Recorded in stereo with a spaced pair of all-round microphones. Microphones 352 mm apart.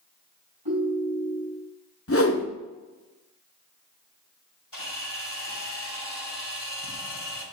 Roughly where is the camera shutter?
Left.